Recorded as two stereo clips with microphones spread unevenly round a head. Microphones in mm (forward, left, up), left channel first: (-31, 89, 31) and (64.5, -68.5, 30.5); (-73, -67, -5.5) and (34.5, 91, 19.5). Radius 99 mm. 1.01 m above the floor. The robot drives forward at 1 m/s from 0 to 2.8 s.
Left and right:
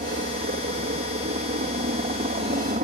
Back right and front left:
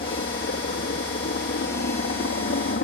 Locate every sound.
0.0 s a helicopter: 95° right; by 2.8 s 105° right